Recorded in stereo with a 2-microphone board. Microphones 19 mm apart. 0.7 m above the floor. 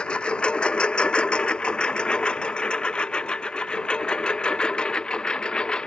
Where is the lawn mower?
85° left; by 5.9 s 55° left (ahead or behind).